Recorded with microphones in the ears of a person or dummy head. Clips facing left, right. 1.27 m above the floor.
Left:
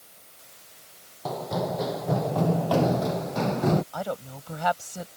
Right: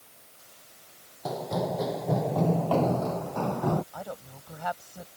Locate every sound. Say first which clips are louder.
1.2 s running footsteps: left 1 dB; 10° right (ahead or behind); by 3.8 s 30° left (ahead or behind)
3.9 s a woman speaking: left 7 dB; 65° left (ahead or behind)